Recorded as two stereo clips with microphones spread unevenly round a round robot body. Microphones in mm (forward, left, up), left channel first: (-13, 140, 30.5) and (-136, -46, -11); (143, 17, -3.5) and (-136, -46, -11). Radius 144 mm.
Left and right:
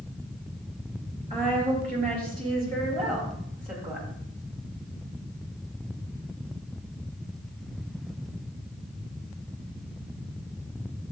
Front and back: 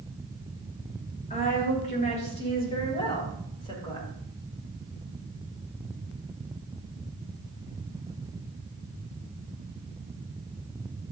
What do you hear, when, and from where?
1.3 s a woman speaking: 50° right, 5.5 m; by 4.1 s 60° right, 7 m